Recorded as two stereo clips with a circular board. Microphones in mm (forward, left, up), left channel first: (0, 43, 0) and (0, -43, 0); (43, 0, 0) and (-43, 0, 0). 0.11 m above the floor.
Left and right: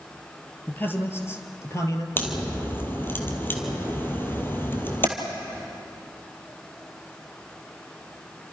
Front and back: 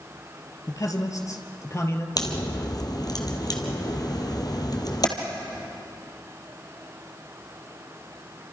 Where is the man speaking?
30° left, 2.5 m; by 2.1 s 50° left, 2.5 m.